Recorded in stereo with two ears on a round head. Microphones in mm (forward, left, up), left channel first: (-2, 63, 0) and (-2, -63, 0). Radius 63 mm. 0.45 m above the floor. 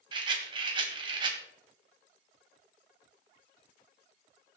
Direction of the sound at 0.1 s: 35° right (ahead or behind).